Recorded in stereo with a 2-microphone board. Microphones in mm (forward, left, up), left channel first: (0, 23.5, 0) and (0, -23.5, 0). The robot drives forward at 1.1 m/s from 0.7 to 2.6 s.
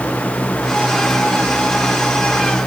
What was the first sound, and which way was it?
Only background noise.